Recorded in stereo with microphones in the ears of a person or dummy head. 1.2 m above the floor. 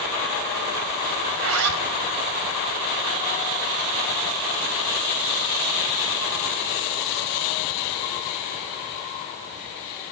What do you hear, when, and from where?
1.3 s a zipper: 80° right, 3 m